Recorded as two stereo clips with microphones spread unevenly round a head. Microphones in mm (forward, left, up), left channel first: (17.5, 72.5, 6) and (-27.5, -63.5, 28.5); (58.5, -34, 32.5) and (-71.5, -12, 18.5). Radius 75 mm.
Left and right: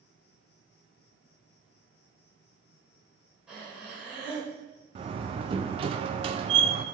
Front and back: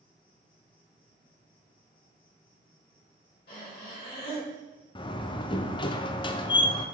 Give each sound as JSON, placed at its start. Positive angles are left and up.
{"t": 0.0, "sound": "an insect", "azimuth_deg": 50, "distance_m": 1.3}
{"t": 3.5, "sound": "breathing", "azimuth_deg": -25, "distance_m": 3.0}
{"t": 5.0, "sound": "a door slam", "azimuth_deg": -60, "distance_m": 0.5}